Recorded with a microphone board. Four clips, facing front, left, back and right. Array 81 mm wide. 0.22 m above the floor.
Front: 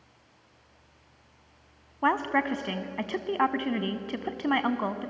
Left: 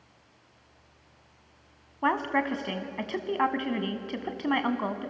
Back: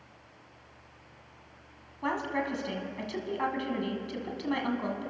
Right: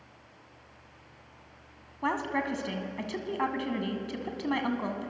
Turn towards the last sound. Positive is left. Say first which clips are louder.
# left 4 dB, front 6 dB
turn(degrees=25)